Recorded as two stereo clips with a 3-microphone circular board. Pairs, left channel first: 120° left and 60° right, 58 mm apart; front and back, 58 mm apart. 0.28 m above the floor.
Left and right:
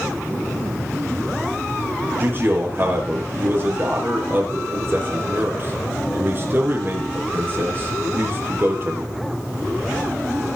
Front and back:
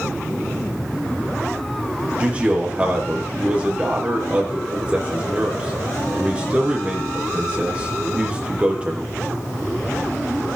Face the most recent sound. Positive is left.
turn(degrees=-110)